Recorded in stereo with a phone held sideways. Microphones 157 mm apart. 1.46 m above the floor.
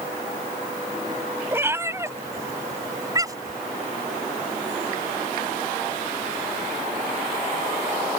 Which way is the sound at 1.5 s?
15° right (ahead or behind).